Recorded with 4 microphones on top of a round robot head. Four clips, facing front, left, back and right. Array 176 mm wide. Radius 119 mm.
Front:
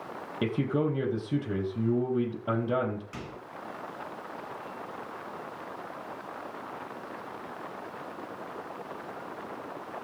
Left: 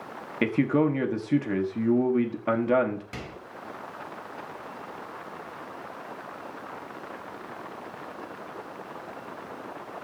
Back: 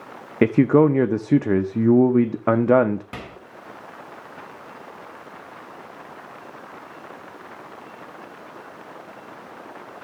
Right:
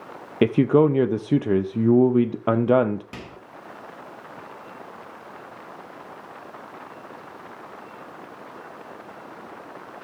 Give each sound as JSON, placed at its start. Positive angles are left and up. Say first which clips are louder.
{"t": 0.4, "sound": "a man speaking", "louder": "right 6 dB, back 13 dB", "azimuth_deg": -145, "distance_m": 0.6}
{"t": 3.1, "sound": "a microwave", "louder": "even, back 4 dB", "azimuth_deg": -165, "distance_m": 1.7}